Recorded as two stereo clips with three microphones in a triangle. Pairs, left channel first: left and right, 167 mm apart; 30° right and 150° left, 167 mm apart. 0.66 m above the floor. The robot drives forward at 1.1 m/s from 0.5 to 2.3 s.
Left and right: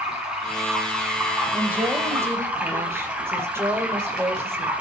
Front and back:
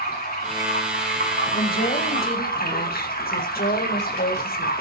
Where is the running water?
5° right, 5 m.